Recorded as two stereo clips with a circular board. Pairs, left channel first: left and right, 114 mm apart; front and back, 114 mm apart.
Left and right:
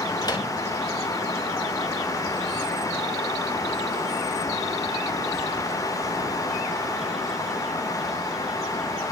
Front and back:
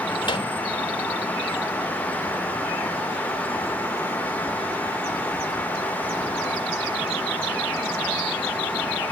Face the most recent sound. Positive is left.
turn(degrees=40)